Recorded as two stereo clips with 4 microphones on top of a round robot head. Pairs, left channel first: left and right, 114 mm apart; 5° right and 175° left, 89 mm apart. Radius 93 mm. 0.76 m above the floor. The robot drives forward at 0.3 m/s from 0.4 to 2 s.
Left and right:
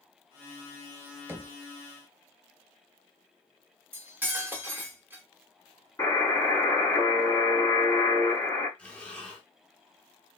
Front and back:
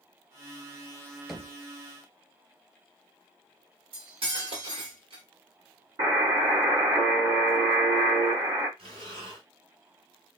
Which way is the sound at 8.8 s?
170° left.